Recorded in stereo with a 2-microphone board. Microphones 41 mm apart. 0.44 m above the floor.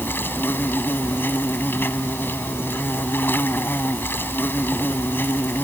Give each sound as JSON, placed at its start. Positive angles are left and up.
{"t": 0.0, "sound": "an insect", "side_deg": 60}